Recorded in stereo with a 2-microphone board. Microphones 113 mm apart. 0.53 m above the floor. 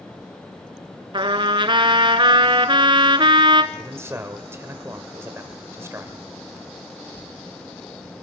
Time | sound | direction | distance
1.1 | a trumpet | 45° right (ahead or behind) | 1.2 m
3.7 | a man speaking | 25° right (ahead or behind) | 2.5 m